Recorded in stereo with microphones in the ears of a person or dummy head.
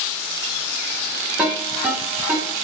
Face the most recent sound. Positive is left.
turn(degrees=-10)  # may be behind; listen again after turning